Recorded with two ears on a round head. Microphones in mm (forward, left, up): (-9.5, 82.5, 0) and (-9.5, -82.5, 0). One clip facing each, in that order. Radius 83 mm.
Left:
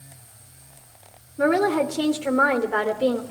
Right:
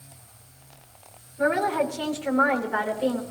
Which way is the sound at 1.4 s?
50° left (ahead or behind).